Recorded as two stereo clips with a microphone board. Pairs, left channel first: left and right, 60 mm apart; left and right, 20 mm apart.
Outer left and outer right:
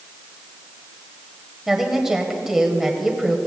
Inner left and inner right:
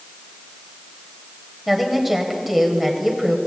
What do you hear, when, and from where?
1.7 s a woman speaking: 5° right (ahead or behind), 1.7 m